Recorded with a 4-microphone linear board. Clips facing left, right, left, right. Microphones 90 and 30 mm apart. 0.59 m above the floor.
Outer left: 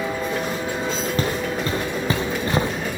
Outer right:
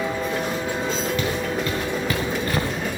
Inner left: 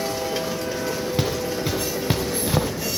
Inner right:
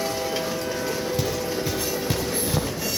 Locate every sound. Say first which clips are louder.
1.2 s footsteps: outer left 1 dB, inner left 1 dB; 35° left (ahead or behind), 3.5 m; by 2.7 s 20° left (ahead or behind), 3 m